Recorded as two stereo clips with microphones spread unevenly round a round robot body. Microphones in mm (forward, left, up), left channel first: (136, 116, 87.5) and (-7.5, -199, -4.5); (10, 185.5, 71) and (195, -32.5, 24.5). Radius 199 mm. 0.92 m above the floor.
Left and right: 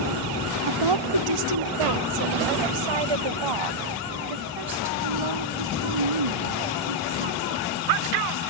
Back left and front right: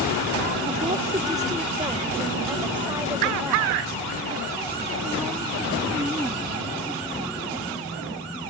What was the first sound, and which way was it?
A woman speaking, 125° right.